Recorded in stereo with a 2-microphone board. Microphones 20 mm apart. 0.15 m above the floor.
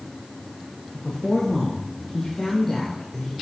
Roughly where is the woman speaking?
Left.